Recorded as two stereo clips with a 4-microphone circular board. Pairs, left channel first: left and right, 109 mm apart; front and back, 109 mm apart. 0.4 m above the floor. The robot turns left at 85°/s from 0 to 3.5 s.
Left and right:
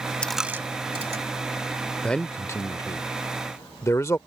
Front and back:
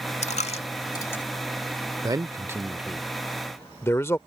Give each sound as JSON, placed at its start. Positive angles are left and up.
{"t": 0.2, "sound": "a dropped coin", "azimuth_deg": 10}
{"t": 2.0, "sound": "a man speaking", "azimuth_deg": 170}